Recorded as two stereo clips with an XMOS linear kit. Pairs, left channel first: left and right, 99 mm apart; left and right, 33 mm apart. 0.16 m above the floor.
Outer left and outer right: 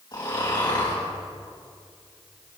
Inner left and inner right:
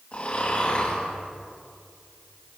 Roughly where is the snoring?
Left.